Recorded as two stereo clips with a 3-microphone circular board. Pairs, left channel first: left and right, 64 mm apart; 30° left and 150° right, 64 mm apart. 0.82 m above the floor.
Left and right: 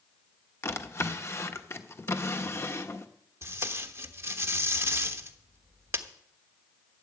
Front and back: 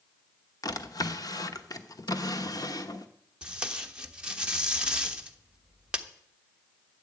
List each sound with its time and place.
0.6 s a drawer: 45° left, 1.0 m
3.4 s tape being pulled: 85° right, 1.1 m